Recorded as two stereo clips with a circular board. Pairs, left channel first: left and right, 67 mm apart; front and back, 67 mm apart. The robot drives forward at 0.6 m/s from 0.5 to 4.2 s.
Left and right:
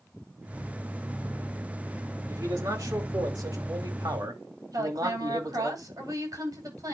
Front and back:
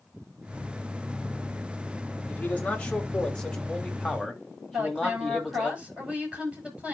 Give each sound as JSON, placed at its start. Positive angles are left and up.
{"t": 2.3, "sound": "a man speaking", "azimuth_deg": -65, "distance_m": 3.0}
{"t": 4.7, "sound": "a woman speaking", "azimuth_deg": -110, "distance_m": 8.5}